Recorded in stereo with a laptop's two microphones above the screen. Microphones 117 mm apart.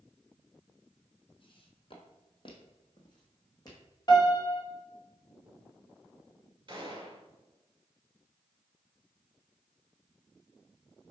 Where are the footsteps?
50° left (ahead or behind), 1.6 m; by 3.8 s 35° left (ahead or behind), 2.5 m.